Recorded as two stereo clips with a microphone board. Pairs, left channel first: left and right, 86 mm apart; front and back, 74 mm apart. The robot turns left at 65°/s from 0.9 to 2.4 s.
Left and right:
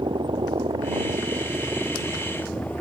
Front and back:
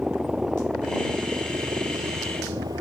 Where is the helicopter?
100° right; by 2.8 s 165° left.